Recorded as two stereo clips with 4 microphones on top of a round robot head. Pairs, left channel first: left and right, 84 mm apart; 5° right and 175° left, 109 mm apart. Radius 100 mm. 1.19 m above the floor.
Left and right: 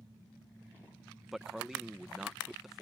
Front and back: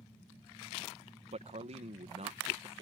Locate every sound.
1.3 s a man speaking: 175° right